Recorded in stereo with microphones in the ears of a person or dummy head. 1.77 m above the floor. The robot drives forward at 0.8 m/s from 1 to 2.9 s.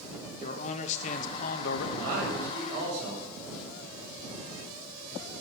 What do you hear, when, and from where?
0.4 s a man speaking: 40° left (ahead or behind), 1.5 m; by 1.9 s 60° left (ahead or behind), 1.1 m
2.0 s a man speaking: 60° right (ahead or behind), 6.5 m; by 3.3 s 70° right (ahead or behind), 6 m